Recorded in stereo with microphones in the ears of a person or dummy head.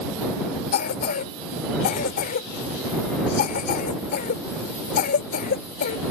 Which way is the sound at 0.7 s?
50° left (ahead or behind).